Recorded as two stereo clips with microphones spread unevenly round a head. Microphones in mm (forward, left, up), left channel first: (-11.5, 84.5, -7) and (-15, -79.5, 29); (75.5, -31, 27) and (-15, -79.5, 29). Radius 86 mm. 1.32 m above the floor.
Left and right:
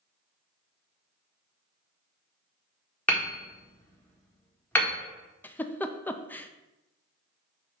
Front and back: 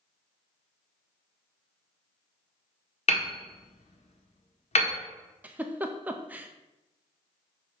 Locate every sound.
3.1 s hammering: 5° left, 1.4 m
5.4 s a giggle: 140° left, 0.5 m